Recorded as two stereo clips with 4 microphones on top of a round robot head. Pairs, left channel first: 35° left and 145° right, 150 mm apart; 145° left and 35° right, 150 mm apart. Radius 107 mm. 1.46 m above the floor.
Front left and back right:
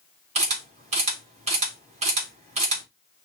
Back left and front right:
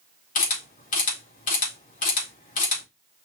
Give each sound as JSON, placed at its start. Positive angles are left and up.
{"t": 0.3, "sound": "a camera shutter", "azimuth_deg": 175, "distance_m": 3.5}